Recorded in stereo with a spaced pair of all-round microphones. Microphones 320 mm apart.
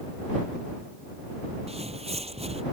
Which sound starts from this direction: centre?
Footsteps, at 1.7 s.